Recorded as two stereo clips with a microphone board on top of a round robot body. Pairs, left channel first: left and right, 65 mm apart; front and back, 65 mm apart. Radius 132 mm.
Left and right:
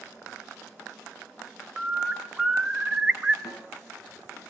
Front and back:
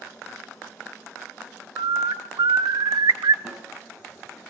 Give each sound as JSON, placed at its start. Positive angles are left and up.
{"t": 1.8, "sound": "a bird", "azimuth_deg": -170, "distance_m": 0.8}
{"t": 3.5, "sound": "a snare drum", "azimuth_deg": 100, "distance_m": 6.5}